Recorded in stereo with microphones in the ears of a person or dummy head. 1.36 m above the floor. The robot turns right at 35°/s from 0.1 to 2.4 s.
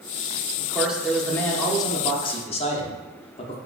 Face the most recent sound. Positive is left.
turn(degrees=45)